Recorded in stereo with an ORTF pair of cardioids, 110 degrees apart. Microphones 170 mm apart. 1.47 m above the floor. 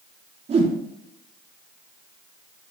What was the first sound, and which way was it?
A whoosh, 40° right.